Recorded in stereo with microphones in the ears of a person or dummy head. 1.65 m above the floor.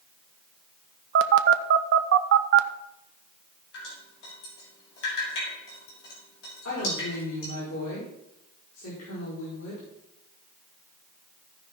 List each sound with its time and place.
1.1 s a phone buzzing: 65° right (ahead or behind), 0.7 m
3.7 s dripping: 65° left (ahead or behind), 4 m
6.7 s a woman speaking: 85° left, 4.5 m